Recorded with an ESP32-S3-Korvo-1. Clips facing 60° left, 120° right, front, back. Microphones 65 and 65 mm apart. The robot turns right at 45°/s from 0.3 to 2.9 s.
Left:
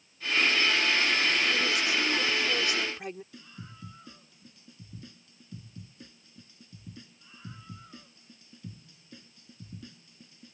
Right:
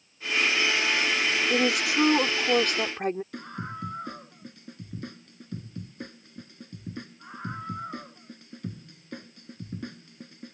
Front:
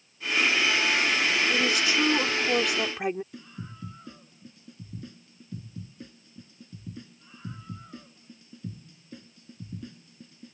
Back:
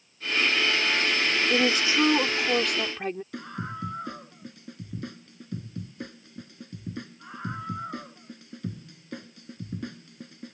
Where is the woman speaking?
140° right; by 3.2 s 75° right.